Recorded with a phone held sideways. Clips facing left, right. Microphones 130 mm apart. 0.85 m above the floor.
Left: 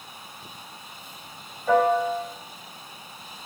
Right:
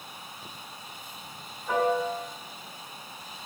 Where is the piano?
80° left, 3.5 m.